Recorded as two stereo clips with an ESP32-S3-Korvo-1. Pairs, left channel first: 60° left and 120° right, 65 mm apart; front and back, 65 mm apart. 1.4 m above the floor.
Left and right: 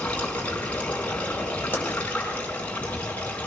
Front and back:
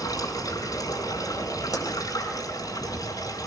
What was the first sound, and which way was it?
Running water, 5° right.